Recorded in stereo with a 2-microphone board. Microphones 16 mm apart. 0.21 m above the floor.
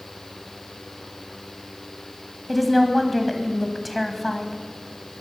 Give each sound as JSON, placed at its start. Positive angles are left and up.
{"t": 2.5, "sound": "a woman speaking", "side_deg": 5, "distance_m": 1.6}